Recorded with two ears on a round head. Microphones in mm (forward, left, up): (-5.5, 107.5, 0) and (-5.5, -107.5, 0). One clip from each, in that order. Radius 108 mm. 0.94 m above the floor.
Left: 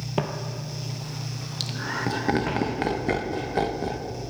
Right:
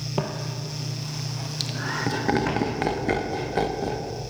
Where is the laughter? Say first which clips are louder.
Right 1 dB; centre (ahead or behind), 0.9 m.